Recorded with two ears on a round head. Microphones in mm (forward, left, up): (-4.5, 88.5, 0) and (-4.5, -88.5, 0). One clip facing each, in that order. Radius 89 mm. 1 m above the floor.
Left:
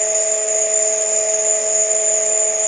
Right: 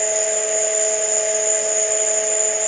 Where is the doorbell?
I don't hear a doorbell.